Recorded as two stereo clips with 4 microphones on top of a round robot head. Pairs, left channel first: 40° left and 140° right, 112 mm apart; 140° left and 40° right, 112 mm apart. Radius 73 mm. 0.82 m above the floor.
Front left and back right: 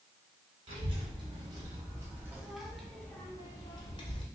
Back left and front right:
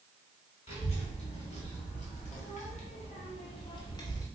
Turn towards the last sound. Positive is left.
turn(degrees=80)